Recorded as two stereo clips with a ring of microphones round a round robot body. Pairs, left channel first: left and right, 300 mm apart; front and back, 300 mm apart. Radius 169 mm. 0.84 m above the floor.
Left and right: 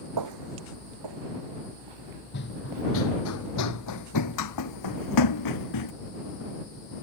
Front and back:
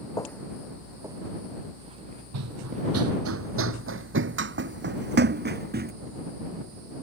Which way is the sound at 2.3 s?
150° left.